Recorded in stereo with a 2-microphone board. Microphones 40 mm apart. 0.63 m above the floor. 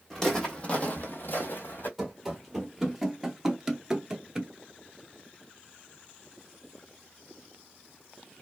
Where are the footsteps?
10° left (ahead or behind), 1.3 m; by 1.9 s 50° left (ahead or behind), 1.3 m.